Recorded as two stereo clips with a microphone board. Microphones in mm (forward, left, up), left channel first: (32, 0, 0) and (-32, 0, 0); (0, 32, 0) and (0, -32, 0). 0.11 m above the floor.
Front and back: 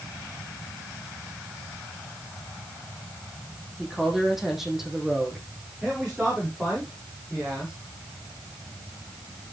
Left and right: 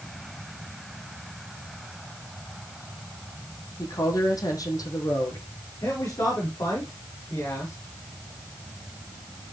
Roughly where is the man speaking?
Left.